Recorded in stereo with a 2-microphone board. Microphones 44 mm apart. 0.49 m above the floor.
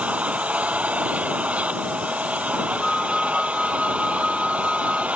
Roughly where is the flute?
Centre.